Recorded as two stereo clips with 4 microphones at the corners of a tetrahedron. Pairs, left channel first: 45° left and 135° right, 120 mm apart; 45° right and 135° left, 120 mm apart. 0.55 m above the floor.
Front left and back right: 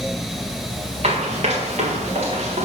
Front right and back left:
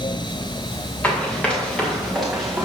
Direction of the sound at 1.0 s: 120° right.